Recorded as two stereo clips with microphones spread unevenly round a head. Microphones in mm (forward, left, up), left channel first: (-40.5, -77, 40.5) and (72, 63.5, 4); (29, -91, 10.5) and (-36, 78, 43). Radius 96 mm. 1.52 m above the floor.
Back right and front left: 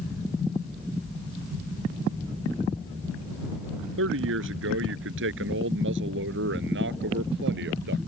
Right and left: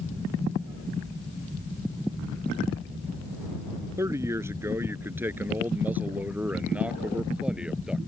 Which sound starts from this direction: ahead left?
A man speaking, at 4.0 s.